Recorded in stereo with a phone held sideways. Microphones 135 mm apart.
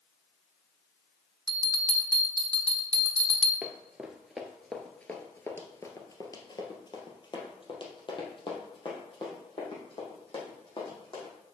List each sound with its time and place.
1.5 s a bell: 30° right (ahead or behind), 1.1 m
3.6 s running footsteps: 10° right (ahead or behind), 1.4 m; by 11.3 s 40° left (ahead or behind), 4 m